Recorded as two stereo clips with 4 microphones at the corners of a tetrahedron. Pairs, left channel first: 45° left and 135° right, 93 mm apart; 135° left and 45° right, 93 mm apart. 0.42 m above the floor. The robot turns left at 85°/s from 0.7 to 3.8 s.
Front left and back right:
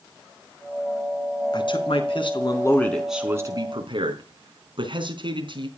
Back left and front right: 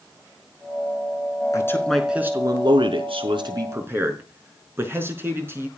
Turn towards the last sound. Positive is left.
turn(degrees=-110)